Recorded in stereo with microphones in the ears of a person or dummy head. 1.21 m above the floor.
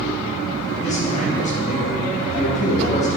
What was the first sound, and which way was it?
A man speaking, 40° left (ahead or behind).